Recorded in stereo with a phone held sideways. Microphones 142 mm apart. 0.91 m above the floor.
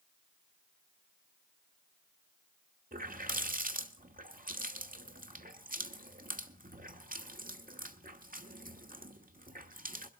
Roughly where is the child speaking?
No child speaking in this recording.